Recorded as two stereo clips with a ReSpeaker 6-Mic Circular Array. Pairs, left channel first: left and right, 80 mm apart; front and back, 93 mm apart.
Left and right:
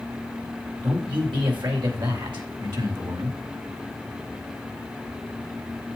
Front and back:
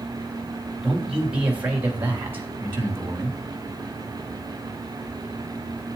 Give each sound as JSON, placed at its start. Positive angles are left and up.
{"t": 0.8, "sound": "a man speaking", "azimuth_deg": -100, "distance_m": 3.5}